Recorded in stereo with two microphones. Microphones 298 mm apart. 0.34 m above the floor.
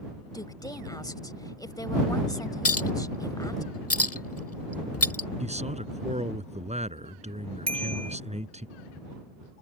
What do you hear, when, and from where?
0.3 s a woman speaking: 15° left (ahead or behind)
2.6 s a clink: 55° left (ahead or behind)
5.4 s a man speaking: 25° right (ahead or behind)
7.7 s a bicycle bell: 65° right (ahead or behind)